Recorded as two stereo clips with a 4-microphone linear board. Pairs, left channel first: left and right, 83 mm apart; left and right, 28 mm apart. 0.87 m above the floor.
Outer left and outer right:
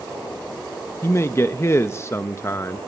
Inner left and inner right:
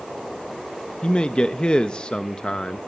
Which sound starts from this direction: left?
A man speaking, at 1.0 s.